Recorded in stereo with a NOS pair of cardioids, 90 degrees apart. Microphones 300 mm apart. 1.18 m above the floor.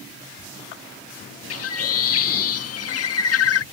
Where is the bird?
50° left.